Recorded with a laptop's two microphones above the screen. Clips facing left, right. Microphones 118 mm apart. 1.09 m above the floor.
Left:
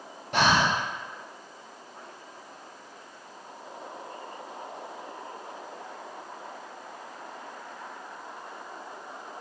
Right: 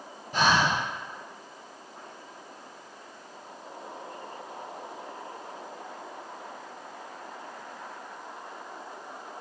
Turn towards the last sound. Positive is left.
turn(degrees=75)  # may be behind; listen again after turning